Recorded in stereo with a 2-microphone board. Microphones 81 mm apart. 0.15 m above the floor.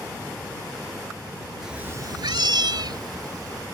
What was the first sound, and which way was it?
A cat meowing, 5° right (ahead or behind).